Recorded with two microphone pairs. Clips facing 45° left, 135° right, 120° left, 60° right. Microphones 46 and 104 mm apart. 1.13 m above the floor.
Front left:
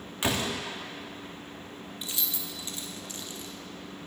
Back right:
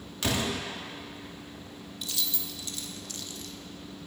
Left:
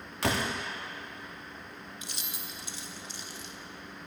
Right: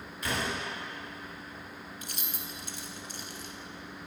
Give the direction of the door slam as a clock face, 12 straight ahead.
8 o'clock.